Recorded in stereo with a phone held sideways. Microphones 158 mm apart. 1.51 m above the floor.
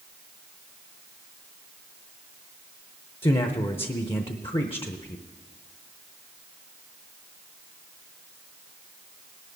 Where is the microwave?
No microwave in this recording.